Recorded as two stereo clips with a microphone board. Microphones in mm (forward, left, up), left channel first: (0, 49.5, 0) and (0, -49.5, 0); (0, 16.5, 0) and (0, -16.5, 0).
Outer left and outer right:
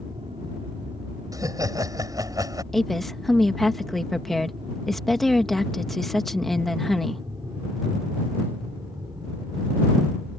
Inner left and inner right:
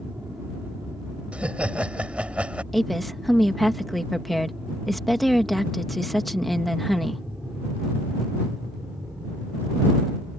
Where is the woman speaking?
5° left (ahead or behind).